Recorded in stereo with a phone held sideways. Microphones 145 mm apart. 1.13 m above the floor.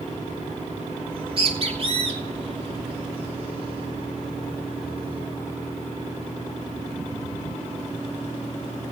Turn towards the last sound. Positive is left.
turn(degrees=-45)  # may be behind; listen again after turning